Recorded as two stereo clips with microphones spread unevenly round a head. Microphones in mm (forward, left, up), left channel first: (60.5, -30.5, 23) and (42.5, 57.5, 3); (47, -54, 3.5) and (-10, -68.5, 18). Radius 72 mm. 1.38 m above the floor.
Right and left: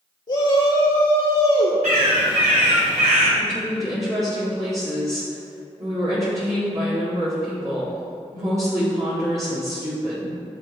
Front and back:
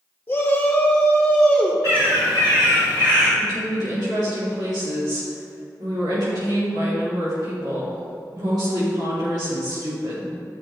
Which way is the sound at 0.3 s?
50° right.